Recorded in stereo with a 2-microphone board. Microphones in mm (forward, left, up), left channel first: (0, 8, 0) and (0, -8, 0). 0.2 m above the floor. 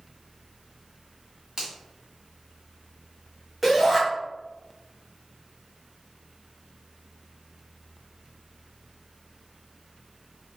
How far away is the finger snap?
About 1.7 m.